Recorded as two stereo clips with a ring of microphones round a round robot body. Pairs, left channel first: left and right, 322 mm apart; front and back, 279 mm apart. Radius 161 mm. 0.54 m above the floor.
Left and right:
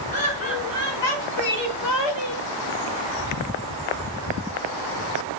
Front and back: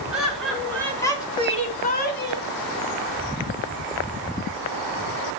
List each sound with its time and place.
0.1 s laughter: 90° left, 4.5 m; by 2.5 s 45° left, 3 m